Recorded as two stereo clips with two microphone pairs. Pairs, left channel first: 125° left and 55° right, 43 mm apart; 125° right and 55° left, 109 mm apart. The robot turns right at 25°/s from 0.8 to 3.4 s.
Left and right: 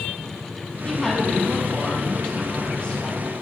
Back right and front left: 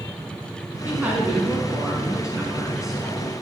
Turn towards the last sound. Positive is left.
turn(degrees=145)